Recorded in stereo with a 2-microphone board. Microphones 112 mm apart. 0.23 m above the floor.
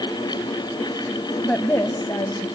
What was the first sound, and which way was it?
A woman speaking, 10° left (ahead or behind).